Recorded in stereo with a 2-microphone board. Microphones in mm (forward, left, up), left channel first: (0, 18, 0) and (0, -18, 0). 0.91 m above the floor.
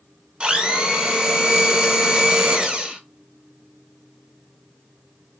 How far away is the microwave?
No microwave in this recording.